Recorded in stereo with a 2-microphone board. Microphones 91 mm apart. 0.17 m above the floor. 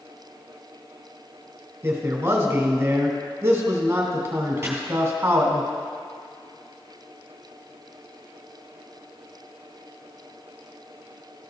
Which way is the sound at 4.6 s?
20° right (ahead or behind).